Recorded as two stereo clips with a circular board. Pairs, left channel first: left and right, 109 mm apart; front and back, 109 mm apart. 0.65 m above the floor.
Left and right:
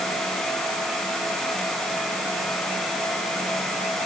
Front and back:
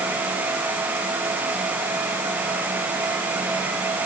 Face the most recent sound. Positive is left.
No sound to turn to.